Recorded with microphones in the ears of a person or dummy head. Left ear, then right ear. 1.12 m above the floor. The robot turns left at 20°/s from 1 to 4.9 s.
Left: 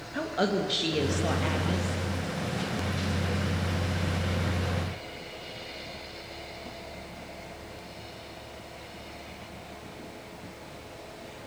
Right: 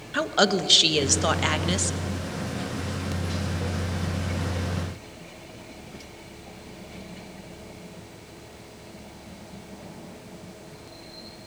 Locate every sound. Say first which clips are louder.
0.1 s a woman speaking: right 6 dB; 40° right (ahead or behind), 1.5 m; by 1.9 s 60° right (ahead or behind), 1.5 m